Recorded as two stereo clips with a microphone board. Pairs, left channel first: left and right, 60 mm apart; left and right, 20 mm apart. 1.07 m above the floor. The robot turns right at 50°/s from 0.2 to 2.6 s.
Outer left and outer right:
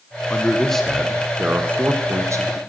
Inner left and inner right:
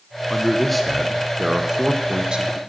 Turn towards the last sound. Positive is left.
turn(degrees=-95)